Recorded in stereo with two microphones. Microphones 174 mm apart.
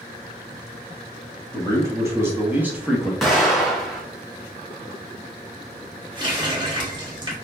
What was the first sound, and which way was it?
A man speaking, 15° right (ahead or behind).